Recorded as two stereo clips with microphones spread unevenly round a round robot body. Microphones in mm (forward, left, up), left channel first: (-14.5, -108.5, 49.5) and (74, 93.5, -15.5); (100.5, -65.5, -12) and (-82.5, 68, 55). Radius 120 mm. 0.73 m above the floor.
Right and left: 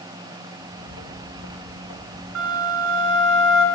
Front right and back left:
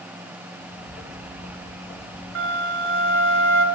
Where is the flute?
110° left, 3 m.